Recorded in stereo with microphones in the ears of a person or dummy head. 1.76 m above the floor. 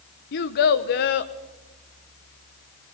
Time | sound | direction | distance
0.3 | a child speaking | 45° left (ahead or behind) | 1.0 m